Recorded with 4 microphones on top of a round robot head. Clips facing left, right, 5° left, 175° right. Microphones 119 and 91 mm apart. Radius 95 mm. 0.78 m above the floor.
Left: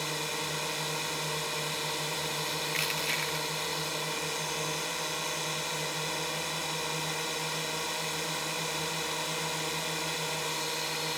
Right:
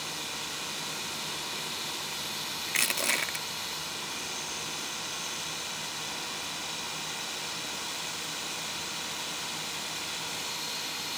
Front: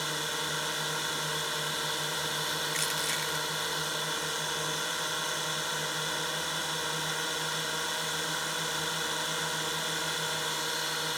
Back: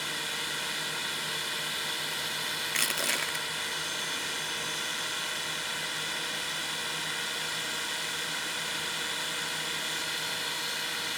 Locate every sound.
0.0 s a drone: 60° left
2.7 s crushing: 135° right